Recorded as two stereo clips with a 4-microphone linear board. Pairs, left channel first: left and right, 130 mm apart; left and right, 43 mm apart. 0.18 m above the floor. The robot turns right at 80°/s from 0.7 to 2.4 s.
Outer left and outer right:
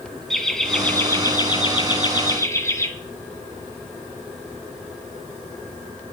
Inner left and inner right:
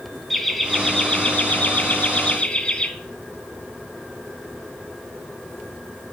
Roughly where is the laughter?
Ahead.